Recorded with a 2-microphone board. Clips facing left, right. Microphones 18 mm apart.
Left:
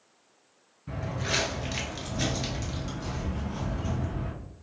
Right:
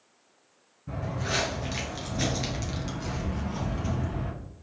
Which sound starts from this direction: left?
Footsteps, at 0.9 s.